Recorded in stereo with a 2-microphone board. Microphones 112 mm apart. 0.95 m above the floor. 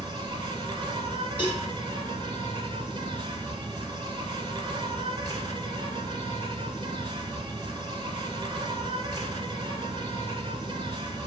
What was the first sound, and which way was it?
An insect, 40° right (ahead or behind).